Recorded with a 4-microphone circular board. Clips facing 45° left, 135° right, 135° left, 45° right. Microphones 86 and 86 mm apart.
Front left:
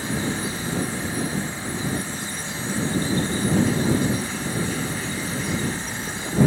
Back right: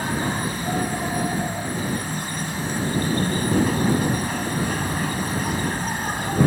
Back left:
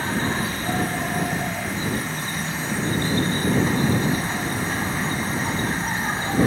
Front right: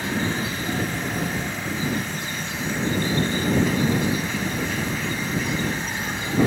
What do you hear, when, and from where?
0.0 s an insect: 170° right